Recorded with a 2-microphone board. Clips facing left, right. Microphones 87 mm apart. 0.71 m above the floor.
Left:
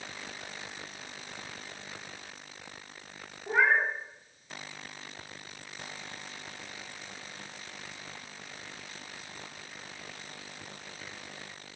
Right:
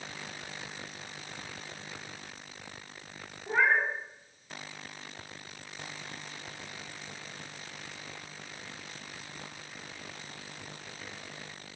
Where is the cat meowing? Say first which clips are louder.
Left 1 dB; 5° left (ahead or behind), 0.5 m.